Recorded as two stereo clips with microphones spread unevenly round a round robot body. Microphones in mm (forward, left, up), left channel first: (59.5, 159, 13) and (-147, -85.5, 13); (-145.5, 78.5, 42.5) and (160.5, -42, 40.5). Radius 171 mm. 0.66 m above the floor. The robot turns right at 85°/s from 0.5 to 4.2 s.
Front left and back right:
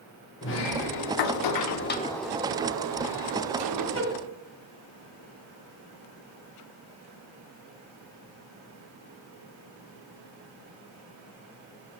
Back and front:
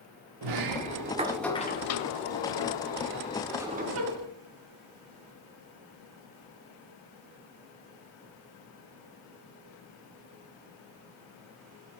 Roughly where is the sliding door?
Ahead.